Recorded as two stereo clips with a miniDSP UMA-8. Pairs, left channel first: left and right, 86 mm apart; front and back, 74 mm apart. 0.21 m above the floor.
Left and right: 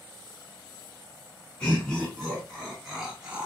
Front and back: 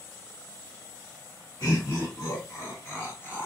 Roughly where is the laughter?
Ahead.